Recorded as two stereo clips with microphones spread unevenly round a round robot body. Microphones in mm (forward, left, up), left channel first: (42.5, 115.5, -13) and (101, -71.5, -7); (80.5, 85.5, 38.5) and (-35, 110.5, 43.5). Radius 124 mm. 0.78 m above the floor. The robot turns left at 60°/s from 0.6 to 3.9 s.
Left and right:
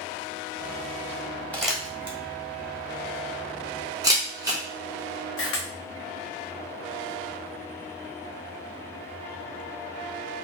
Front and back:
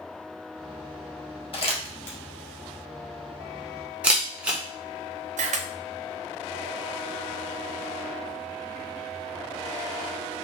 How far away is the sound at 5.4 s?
About 0.5 m.